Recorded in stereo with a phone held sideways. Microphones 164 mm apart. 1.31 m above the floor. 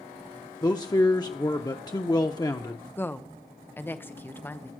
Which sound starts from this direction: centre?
A woman speaking, at 3.0 s.